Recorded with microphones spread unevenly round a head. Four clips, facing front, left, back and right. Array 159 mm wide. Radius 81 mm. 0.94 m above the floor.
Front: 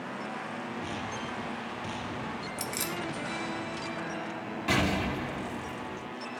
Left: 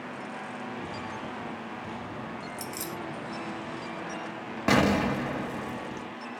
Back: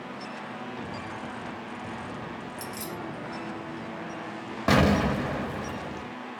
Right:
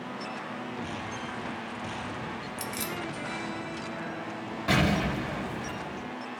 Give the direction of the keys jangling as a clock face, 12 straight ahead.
12 o'clock.